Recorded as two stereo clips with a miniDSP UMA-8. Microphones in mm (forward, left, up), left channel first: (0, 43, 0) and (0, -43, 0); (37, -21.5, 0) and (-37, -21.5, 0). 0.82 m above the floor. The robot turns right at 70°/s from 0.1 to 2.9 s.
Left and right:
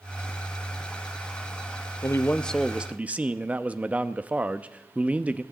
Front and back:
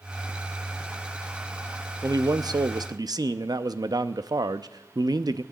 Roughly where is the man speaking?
Behind left.